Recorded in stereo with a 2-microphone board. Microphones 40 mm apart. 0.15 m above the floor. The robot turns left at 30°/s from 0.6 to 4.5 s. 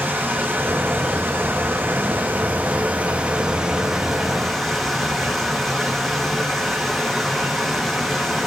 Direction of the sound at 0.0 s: 70° right.